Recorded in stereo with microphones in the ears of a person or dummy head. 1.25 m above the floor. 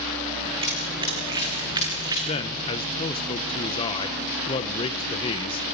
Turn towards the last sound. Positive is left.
turn(degrees=30)  # may be behind; listen again after turning